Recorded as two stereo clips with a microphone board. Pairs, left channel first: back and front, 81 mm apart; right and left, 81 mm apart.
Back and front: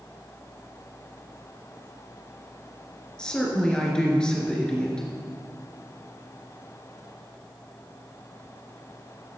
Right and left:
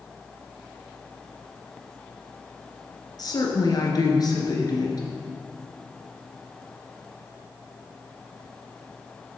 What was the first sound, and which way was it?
A woman speaking, 105° right.